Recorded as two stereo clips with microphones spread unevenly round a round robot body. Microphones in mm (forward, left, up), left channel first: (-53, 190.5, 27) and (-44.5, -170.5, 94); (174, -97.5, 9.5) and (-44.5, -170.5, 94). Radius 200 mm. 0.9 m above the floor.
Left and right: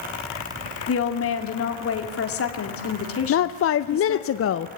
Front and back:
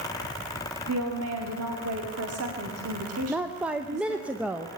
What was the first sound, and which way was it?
A woman speaking, 145° left.